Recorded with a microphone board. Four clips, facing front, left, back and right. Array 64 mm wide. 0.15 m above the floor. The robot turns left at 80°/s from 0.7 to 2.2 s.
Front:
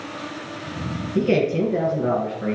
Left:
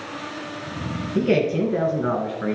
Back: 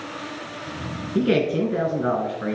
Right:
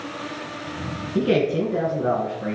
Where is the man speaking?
145° right, 2.5 m; by 2.6 s 130° left, 2.5 m.